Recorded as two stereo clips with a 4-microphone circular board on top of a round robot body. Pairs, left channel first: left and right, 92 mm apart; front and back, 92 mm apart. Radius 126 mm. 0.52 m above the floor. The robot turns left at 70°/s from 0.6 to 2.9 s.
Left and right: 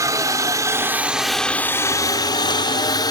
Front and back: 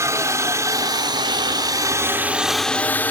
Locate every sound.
0.0 s a helicopter: 130° right; by 3.1 s 65° left